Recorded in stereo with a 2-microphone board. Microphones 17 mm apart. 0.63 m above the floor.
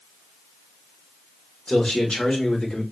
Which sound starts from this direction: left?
A man speaking, at 1.7 s.